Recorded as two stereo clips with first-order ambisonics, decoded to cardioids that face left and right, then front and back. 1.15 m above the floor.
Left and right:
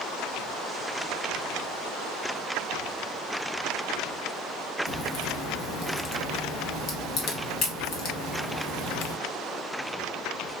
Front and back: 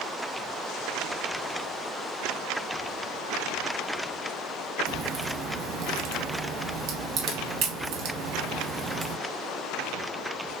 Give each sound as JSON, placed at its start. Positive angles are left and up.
{"t": 4.9, "sound": "a crack", "azimuth_deg": 135, "distance_m": 1.1}